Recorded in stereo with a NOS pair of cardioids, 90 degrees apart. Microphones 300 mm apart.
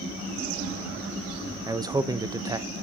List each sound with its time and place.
1.7 s a man speaking: 15° right, 0.7 m